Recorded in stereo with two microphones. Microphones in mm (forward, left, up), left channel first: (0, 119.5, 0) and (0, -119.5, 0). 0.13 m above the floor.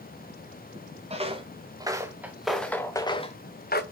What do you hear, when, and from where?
1.1 s footsteps: 25° right (ahead or behind), 1.5 m; by 3.8 s 45° left (ahead or behind), 0.9 m